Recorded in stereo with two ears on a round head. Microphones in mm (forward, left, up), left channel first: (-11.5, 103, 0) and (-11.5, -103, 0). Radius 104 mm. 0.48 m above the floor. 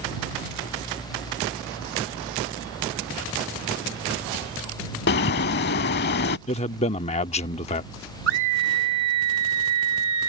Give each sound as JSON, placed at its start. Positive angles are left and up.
{"t": 5.1, "sound": "a bird", "side_deg": 45}
{"t": 6.5, "sound": "a man speaking", "side_deg": 30}
{"t": 8.3, "sound": "a scream", "side_deg": -55}